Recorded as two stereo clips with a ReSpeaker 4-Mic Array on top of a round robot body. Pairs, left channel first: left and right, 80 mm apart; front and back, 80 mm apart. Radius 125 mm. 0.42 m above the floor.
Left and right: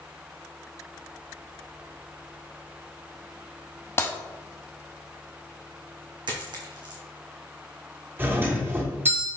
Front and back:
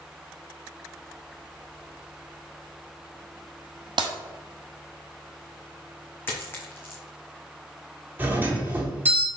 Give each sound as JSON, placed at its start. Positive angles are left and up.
{"t": 4.0, "sound": "breaking glass", "azimuth_deg": 150, "distance_m": 0.9}
{"t": 6.3, "sound": "a dropped coin", "azimuth_deg": -65, "distance_m": 1.6}
{"t": 8.2, "sound": "a doorbell", "azimuth_deg": -130, "distance_m": 1.9}